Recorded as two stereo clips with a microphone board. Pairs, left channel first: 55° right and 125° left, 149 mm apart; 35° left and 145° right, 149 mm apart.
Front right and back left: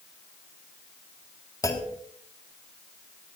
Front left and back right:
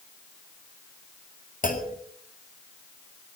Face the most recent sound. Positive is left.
turn(degrees=10)